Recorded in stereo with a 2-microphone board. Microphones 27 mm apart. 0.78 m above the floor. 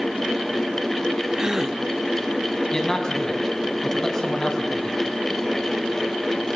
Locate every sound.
1.4 s a gasp: 20° right (ahead or behind), 1.4 m
2.7 s a man speaking: 25° left (ahead or behind), 5.5 m